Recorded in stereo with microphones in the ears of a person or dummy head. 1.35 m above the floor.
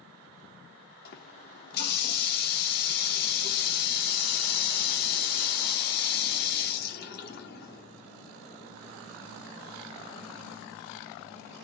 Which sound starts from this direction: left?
A running tap, at 1.1 s.